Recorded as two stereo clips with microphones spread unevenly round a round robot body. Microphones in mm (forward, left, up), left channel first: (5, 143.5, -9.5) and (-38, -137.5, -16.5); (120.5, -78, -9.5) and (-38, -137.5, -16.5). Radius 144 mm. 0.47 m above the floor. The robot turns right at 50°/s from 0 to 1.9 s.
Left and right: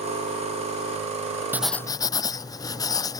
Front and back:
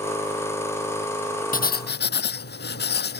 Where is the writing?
15° right; by 3.2 s 5° left.